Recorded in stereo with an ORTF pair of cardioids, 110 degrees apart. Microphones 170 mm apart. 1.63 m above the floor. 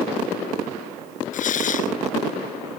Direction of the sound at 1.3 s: 50° left.